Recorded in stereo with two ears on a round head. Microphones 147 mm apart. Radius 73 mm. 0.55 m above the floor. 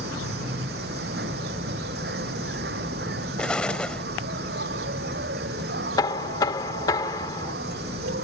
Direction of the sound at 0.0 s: 75° right (ahead or behind).